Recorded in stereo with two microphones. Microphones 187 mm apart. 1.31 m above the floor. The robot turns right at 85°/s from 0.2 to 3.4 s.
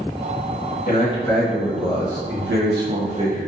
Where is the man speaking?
130° left, 1.1 m; by 3.5 s 10° right, 1.1 m.